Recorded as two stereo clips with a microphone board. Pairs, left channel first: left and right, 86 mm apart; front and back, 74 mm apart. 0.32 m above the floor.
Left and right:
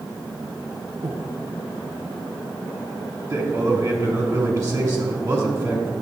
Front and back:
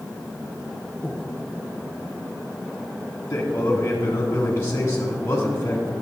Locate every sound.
1.0 s breathing: 90° right, 1.0 m
3.3 s a man speaking: 55° right, 1.6 m